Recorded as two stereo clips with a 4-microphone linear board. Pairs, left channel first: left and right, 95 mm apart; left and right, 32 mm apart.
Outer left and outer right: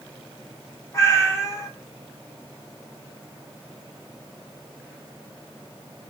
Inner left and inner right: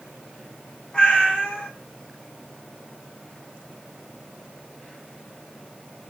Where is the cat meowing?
30° left (ahead or behind), 0.9 m.